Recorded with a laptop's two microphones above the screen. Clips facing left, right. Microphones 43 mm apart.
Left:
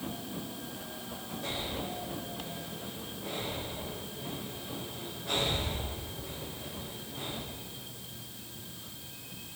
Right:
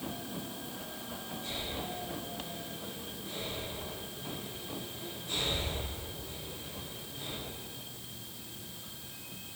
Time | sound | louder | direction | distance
1.4 | breathing | left 3 dB | 75° left (ahead or behind) | 6 m